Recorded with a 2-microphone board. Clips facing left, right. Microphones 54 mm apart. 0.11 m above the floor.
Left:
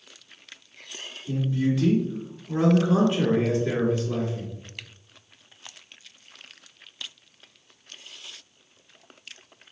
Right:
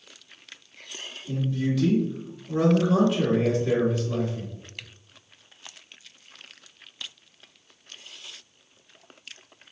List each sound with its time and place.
1.3 s a man speaking: 30° left (ahead or behind), 1.3 m